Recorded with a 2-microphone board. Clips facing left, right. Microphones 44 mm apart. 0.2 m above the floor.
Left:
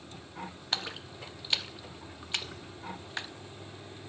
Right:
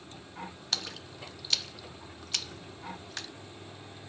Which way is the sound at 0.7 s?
20° left (ahead or behind).